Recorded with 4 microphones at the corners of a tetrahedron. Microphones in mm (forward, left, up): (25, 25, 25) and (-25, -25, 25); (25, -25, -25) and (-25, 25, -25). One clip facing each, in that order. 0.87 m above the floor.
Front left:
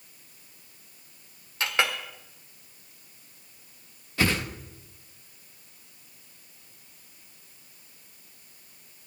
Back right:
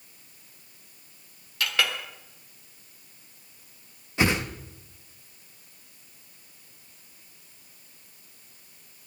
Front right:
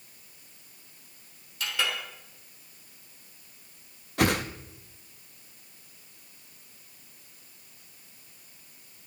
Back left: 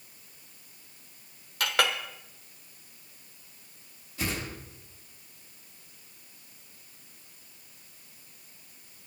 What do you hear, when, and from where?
1.6 s a clink: 110° left, 1.4 m
4.2 s a whoosh: 65° right, 0.8 m